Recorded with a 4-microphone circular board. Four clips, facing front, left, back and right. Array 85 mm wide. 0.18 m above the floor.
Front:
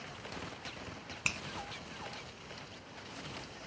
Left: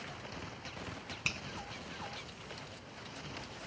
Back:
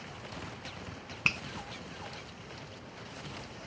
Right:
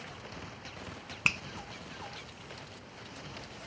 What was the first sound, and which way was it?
A finger snap, 120° right.